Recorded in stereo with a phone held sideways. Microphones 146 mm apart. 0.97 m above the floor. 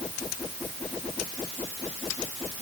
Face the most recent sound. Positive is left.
No sound to turn to.